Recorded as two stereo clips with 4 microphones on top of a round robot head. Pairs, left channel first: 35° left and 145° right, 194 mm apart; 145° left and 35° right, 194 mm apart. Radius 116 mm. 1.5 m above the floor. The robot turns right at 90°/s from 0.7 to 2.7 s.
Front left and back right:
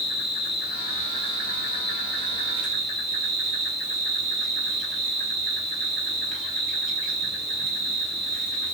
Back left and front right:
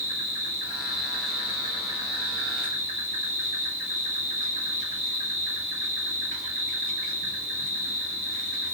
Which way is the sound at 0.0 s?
125° left.